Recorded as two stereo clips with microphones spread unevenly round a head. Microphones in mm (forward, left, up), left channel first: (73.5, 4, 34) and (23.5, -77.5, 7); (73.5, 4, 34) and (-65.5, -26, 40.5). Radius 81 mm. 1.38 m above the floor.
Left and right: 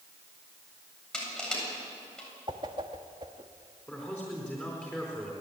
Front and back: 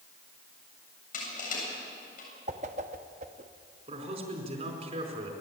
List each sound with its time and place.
1.1 s crushing: 20° right, 7.5 m
2.5 s a whoosh: 170° left, 0.9 m
3.9 s a man speaking: 140° left, 4.5 m